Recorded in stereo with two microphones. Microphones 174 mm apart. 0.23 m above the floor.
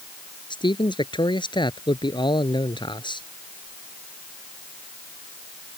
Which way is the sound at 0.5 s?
25° left (ahead or behind).